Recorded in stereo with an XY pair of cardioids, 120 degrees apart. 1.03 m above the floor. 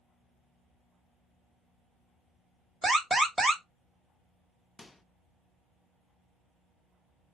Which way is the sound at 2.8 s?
20° right.